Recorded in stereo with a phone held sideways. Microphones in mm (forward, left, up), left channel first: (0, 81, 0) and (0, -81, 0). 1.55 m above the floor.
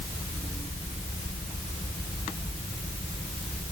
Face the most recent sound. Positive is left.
No sound to turn to.